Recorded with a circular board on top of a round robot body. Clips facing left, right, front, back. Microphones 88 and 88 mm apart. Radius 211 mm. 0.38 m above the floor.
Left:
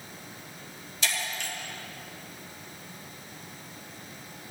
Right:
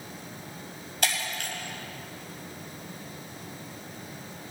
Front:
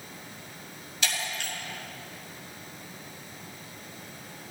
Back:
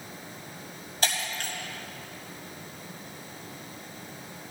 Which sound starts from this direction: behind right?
Breaking glass, at 1.0 s.